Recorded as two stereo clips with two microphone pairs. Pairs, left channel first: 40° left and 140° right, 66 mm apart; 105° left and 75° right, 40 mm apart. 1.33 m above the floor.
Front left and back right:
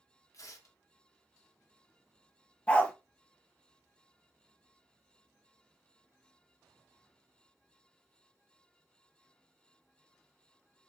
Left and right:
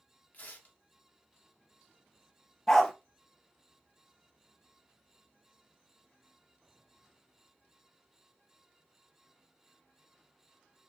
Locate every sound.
0.3 s tearing paper: 65° left, 1.0 m
2.7 s a dog barking: 50° left, 0.7 m